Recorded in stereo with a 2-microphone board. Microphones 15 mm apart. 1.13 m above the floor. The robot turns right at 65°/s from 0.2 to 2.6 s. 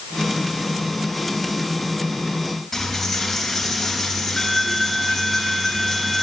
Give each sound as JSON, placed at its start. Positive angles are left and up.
{"t": 2.7, "sound": "a dropped coin", "side_deg": 20, "distance_m": 3.5}